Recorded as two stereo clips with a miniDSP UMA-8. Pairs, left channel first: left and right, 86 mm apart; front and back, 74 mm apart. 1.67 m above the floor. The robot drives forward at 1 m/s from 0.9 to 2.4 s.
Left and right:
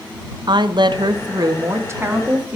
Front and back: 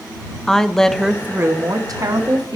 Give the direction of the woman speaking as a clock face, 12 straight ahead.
3 o'clock.